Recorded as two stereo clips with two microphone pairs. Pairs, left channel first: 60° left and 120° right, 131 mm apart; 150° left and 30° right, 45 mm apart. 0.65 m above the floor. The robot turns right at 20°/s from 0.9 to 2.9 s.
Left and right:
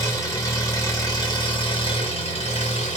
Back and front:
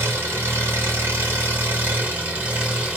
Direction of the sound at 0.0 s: 5° right.